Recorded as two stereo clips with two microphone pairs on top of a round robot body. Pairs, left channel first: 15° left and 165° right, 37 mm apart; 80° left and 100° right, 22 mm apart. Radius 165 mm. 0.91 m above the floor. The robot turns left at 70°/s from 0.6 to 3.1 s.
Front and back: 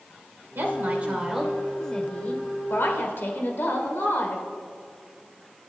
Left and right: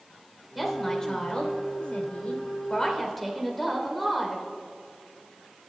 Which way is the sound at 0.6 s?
170° left.